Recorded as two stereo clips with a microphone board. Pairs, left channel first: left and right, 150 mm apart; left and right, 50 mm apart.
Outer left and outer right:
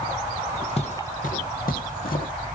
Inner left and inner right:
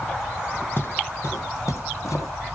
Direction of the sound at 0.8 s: 45° left (ahead or behind).